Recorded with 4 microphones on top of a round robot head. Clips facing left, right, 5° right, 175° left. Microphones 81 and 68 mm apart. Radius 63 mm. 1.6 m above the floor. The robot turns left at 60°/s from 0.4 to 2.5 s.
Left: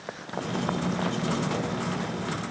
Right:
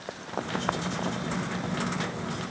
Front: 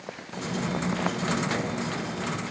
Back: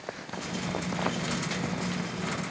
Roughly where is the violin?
I don't hear a violin.